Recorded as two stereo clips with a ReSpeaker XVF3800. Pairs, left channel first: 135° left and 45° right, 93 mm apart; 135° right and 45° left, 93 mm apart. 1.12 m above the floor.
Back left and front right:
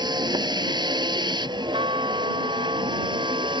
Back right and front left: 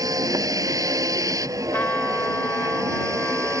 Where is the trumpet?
65° right.